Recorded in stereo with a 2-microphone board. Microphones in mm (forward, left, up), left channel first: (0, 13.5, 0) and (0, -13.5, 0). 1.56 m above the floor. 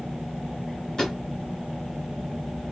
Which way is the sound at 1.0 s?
25° left (ahead or behind).